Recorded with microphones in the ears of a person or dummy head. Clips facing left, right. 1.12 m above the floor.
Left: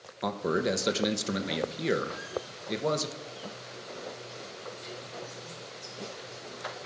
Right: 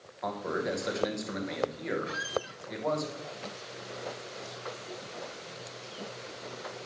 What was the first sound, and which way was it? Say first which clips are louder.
A man speaking: left 4 dB; 40° left (ahead or behind).